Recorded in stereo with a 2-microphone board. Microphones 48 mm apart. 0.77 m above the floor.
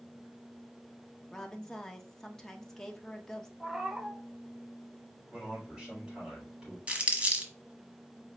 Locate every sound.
1.3 s a woman speaking: 10° left (ahead or behind), 0.7 m
3.6 s a cat meowing: 10° right (ahead or behind), 0.7 m
5.3 s a man speaking: 10° right (ahead or behind), 4 m
6.9 s crumpling: 25° right (ahead or behind), 1.2 m